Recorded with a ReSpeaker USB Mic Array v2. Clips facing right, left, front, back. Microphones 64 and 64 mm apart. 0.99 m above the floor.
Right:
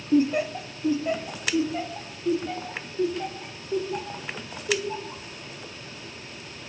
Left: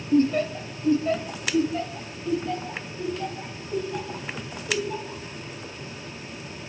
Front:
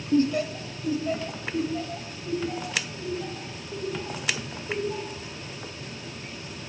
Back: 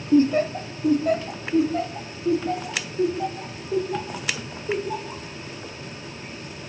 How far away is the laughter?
About 0.7 m.